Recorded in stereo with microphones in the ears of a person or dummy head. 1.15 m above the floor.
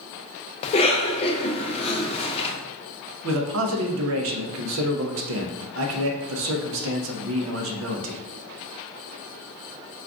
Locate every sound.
0.6 s a cough: 30° left (ahead or behind), 0.6 m
3.2 s a man speaking: 70° right (ahead or behind), 0.6 m